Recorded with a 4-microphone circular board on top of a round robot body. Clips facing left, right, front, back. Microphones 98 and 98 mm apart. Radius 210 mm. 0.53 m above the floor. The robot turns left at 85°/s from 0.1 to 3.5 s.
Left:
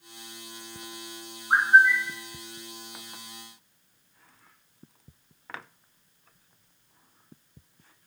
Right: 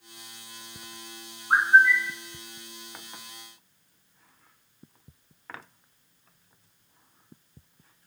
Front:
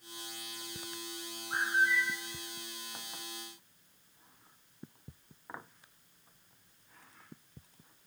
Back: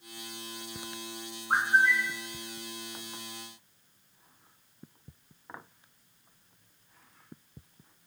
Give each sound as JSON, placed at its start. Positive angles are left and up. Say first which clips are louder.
{"t": 1.5, "sound": "a bird", "louder": "even, back 5 dB", "azimuth_deg": -165, "distance_m": 1.2}